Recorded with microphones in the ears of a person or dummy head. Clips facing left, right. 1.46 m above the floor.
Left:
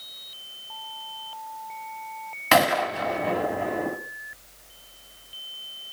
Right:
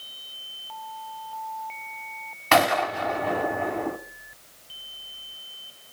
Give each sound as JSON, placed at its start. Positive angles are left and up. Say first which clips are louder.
{"t": 2.5, "sound": "a gunshot", "louder": "even", "side_deg": 10, "distance_m": 2.5}